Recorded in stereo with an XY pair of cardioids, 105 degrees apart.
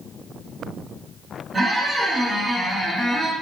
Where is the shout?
I don't hear a shout.